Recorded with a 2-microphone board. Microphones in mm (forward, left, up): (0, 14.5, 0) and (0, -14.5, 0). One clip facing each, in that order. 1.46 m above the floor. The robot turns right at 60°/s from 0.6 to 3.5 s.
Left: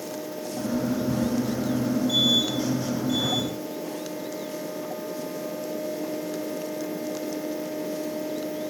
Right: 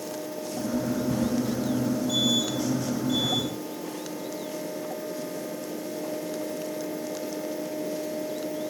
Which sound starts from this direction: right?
Ticking, at 1.1 s.